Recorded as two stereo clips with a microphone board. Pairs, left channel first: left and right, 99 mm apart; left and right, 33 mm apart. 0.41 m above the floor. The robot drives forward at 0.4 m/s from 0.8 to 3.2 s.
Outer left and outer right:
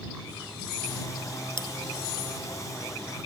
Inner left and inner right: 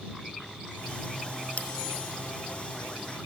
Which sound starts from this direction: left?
A bell, at 1.6 s.